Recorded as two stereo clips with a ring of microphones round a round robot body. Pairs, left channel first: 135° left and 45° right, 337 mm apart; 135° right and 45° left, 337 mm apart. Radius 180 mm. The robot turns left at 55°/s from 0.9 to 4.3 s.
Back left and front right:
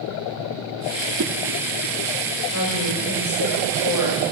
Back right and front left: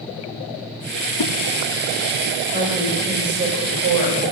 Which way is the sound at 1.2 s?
100° right.